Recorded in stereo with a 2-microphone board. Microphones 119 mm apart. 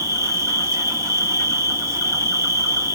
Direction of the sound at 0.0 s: 25° right (ahead or behind).